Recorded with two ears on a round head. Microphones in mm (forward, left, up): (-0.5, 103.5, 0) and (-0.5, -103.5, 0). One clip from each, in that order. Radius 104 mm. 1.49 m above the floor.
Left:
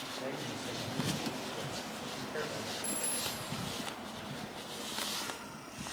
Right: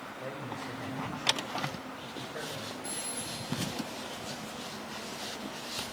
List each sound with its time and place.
0.2 s a man speaking: 80° left, 5.5 m
2.8 s a phone ringing: 45° left (ahead or behind), 3 m